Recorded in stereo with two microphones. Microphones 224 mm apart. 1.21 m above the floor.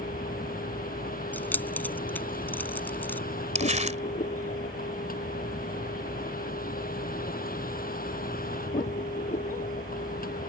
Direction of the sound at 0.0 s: 40° left (ahead or behind).